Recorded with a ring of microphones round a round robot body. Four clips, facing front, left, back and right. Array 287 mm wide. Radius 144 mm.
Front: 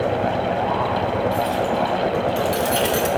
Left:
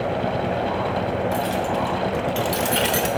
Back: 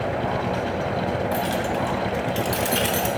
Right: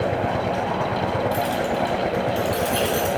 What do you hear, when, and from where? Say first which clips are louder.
1.3 s keys jangling: even, front 3 dB; 170° right, 1.4 m; by 3.1 s 85° left, 1.2 m